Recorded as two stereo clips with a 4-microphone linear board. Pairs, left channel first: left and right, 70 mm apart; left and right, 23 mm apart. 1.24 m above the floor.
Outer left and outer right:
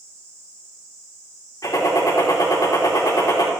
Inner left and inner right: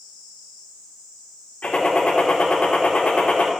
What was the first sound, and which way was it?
A gunshot, 70° left (ahead or behind).